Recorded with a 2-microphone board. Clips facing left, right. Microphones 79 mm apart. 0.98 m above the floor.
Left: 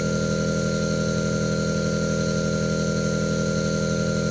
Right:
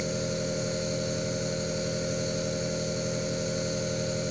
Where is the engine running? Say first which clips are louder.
Left 7 dB; 70° left (ahead or behind), 6.5 m.